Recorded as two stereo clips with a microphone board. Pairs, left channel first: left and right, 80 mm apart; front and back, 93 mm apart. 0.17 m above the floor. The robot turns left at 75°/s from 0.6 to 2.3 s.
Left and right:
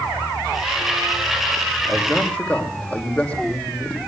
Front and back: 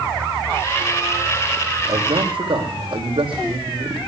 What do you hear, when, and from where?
1.9 s a man speaking: 160° right, 6.5 m; by 4.0 s 165° left, 6.5 m